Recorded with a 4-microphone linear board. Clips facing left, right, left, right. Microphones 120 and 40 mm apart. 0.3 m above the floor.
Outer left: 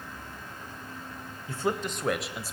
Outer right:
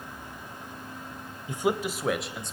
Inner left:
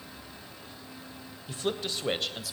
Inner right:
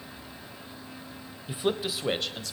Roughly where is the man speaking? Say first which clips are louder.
Outer right 3 dB, inner right 3 dB; centre.